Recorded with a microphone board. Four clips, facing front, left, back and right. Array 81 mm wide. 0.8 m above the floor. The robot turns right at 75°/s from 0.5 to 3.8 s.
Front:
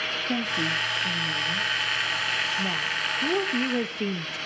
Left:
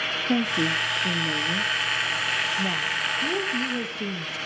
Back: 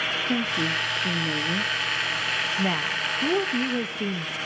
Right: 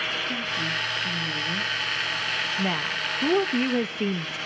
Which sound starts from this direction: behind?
A woman speaking, at 2.6 s.